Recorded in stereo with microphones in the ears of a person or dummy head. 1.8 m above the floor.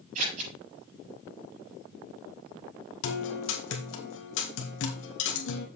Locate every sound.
0.1 s scissors: 45° right (ahead or behind), 6 m
3.0 s a guitar: 75° left (ahead or behind), 1.9 m